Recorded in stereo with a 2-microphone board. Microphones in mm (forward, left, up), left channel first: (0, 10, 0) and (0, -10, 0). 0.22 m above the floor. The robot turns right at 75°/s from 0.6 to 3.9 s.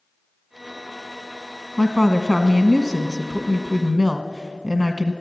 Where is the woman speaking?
175° left, 1.1 m; by 5.1 s 25° right, 1.1 m.